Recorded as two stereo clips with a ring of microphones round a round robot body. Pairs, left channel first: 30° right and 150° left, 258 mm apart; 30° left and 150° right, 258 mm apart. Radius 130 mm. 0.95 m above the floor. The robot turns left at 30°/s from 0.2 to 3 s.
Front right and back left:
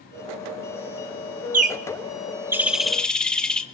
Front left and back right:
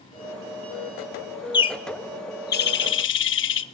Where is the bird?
100° left, 1.3 m; by 3.6 s 55° left, 1.3 m.